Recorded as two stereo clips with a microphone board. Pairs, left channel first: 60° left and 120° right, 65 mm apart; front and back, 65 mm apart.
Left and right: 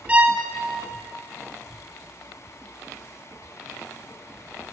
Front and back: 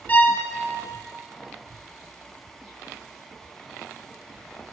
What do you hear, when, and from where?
0.1 s a violin: 55° right, 0.7 m